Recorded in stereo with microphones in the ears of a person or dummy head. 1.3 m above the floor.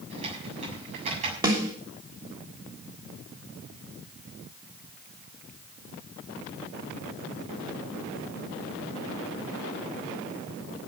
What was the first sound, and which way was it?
Typing on a keyboard, 40° right (ahead or behind).